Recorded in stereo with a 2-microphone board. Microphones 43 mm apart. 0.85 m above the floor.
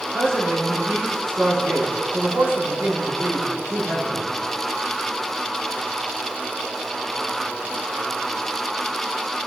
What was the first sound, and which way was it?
A man speaking, 75° right (ahead or behind).